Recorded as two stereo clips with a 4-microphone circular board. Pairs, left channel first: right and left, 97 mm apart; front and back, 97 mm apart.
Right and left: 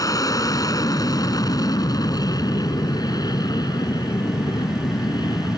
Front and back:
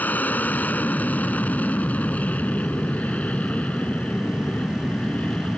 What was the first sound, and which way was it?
An aircraft, 65° right.